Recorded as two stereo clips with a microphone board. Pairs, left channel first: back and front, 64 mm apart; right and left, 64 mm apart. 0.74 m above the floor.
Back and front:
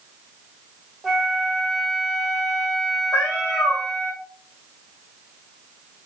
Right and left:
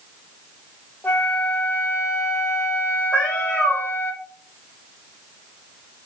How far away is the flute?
About 0.7 m.